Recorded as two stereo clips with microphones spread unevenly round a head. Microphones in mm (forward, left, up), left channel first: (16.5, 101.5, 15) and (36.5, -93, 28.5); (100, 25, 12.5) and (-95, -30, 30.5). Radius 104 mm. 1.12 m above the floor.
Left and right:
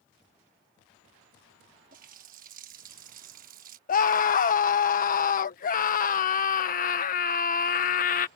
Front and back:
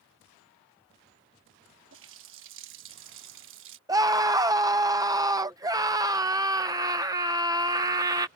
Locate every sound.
1.9 s a running tap: 135° right
3.9 s a scream: 125° left